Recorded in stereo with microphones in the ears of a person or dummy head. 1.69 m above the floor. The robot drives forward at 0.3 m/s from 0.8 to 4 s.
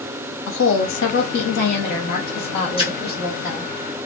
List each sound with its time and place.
0.5 s a woman speaking: 70° left (ahead or behind), 0.6 m; by 3.7 s 25° left (ahead or behind), 1.2 m
2.8 s a splash: 25° left (ahead or behind), 0.9 m